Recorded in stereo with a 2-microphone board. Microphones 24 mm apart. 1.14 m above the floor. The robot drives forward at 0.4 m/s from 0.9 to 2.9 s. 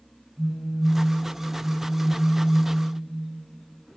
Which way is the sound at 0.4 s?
70° right (ahead or behind).